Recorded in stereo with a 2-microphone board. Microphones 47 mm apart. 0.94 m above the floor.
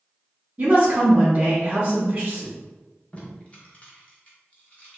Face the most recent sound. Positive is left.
turn(degrees=30)  # may be behind; listen again after turning